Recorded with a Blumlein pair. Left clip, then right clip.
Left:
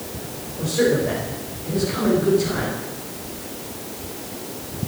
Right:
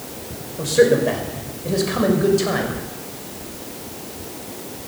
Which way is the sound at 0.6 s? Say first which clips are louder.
Right 5 dB; 65° right.